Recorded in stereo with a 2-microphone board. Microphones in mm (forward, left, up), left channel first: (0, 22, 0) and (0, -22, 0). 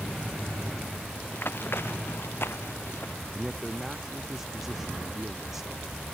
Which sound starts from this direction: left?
Running footsteps, at 1.3 s.